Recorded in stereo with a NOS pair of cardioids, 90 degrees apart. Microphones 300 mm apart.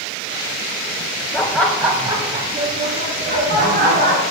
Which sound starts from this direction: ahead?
Laughter, at 1.3 s.